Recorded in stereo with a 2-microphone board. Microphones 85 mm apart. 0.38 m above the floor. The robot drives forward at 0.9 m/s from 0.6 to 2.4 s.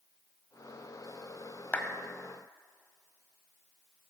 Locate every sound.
1.7 s a clap: 20° left (ahead or behind), 1.6 m